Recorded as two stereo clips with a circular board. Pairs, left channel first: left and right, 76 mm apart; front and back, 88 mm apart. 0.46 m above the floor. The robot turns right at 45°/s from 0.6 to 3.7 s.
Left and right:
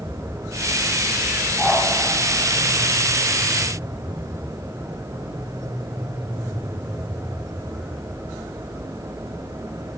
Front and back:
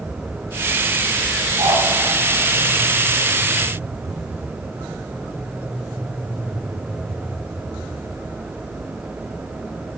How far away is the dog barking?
About 9 m.